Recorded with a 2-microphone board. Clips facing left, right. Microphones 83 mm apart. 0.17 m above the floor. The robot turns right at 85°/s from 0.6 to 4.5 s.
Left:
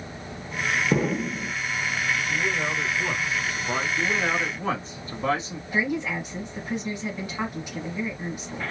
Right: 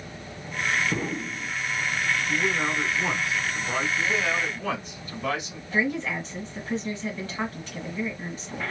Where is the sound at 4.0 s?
90° left, 1.4 m; by 5.6 s 135° left, 1.4 m.